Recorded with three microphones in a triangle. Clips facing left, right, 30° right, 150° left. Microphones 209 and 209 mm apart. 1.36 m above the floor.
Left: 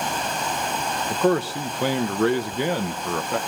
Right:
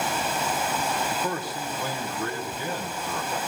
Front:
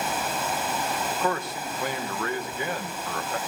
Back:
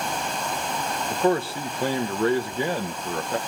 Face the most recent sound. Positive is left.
turn(degrees=90)